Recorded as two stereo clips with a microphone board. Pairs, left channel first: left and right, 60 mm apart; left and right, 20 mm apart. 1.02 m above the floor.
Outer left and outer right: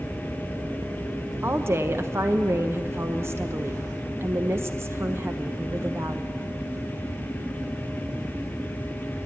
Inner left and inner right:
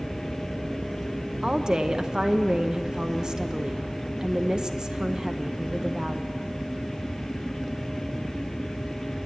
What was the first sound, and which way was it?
A woman speaking, 40° right (ahead or behind).